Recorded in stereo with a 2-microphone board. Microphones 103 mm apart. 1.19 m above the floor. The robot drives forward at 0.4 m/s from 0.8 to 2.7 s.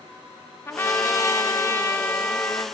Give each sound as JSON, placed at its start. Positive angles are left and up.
{"t": 0.7, "sound": "a trumpet", "side_deg": 25, "distance_m": 0.5}